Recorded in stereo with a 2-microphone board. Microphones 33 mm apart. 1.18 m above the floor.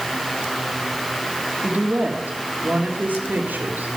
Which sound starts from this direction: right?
A woman speaking, at 1.6 s.